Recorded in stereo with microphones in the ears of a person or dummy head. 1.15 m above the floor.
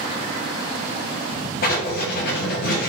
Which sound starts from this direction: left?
Writing, at 1.6 s.